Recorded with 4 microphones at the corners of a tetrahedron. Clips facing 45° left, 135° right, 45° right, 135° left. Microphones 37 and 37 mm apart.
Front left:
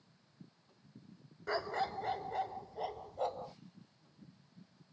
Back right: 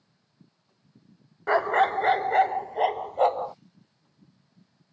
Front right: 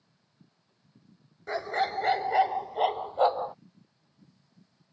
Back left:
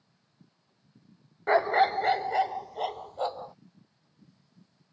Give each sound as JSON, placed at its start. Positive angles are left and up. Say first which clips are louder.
{"t": 1.5, "sound": "a dog barking", "louder": "back right 15 dB, back left 7 dB", "azimuth_deg": -175}